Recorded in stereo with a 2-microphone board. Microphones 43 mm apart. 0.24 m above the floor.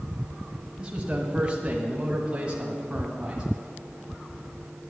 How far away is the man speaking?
About 1.5 m.